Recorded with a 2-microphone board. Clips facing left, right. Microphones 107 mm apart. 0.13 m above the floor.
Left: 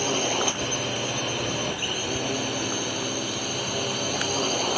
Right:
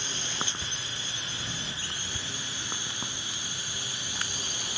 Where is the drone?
60° left (ahead or behind).